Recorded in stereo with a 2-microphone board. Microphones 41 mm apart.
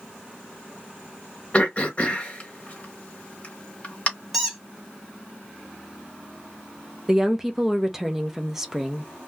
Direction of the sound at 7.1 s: 10° right (ahead or behind).